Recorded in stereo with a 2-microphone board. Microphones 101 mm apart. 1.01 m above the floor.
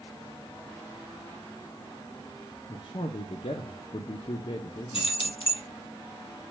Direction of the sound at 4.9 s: 60° left (ahead or behind).